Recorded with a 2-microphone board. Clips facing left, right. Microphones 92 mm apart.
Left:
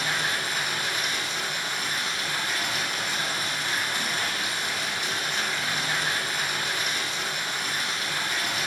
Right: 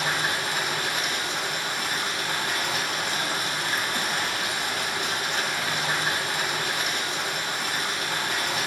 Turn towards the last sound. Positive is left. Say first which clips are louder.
# right 2 dB
turn(degrees=-70)  # may be behind; listen again after turning